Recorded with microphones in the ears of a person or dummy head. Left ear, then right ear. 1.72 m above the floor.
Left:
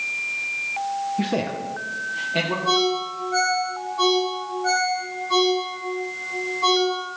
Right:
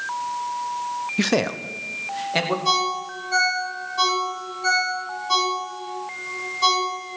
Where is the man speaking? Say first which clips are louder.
Right 3 dB; 70° right (ahead or behind), 0.6 m; by 2.5 s 55° right (ahead or behind), 2.5 m.